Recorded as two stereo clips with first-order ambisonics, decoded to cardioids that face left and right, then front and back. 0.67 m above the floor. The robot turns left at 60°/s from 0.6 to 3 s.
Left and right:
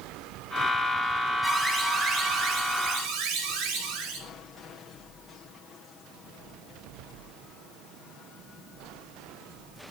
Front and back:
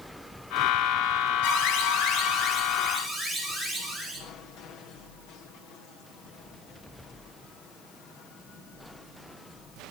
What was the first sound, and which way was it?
An alarm, 10° left.